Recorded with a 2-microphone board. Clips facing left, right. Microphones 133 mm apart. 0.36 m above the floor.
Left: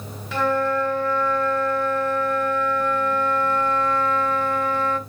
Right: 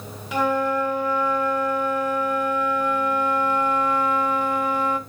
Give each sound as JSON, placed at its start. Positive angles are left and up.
{"t": 0.3, "sound": "a flute", "side_deg": -15, "distance_m": 1.5}